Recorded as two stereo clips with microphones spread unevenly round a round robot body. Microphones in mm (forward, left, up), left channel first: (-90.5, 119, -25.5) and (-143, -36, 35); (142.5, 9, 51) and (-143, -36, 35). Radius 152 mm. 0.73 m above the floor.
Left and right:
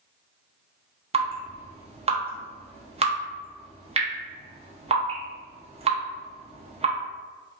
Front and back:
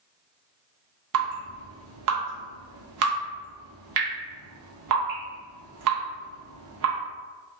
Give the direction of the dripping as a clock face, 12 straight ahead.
6 o'clock.